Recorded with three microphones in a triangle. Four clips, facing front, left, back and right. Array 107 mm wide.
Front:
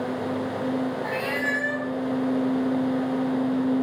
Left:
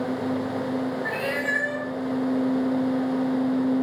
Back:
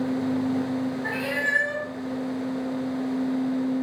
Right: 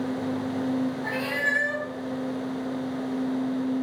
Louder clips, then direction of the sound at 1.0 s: Left 1 dB, front 1 dB; 35° right.